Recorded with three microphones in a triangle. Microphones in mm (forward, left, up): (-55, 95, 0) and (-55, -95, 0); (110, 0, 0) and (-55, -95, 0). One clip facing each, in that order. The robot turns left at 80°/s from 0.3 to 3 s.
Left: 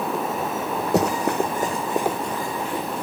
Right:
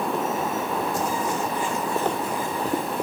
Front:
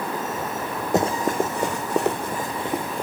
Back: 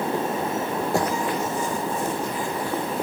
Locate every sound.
0.9 s running footsteps: 100° left, 1.4 m; by 3.0 s 65° right, 2.5 m